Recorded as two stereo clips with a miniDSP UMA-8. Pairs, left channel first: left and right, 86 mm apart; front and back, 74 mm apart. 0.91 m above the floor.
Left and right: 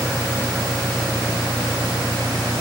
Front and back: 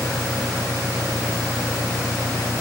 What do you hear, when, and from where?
0.0 s an engine running: 35° right